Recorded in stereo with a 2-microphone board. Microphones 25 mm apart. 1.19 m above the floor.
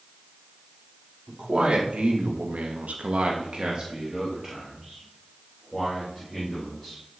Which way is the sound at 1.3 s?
40° right (ahead or behind).